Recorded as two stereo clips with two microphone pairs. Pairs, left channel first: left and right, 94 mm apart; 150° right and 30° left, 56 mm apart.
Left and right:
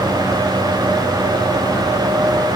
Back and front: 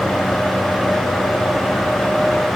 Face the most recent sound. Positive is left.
No sound to turn to.